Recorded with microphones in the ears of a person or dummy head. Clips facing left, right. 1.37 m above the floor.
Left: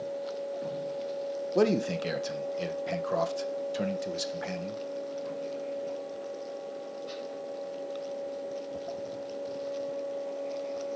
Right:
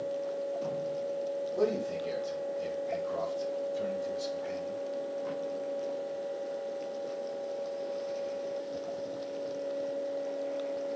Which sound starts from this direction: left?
A man speaking, at 1.6 s.